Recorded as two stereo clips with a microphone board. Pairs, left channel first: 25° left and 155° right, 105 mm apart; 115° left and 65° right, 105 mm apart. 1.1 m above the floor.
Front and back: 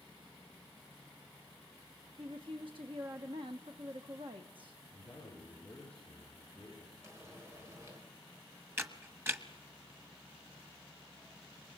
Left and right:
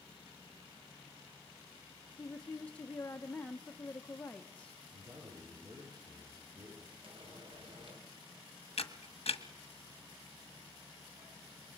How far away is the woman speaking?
About 1.1 m.